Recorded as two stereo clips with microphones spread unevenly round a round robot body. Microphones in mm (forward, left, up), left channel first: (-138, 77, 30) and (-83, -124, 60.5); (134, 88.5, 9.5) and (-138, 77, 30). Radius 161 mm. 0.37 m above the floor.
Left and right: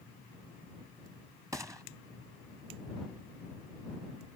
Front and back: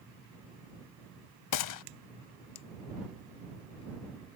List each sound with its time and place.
1.5 s a gunshot: 5° left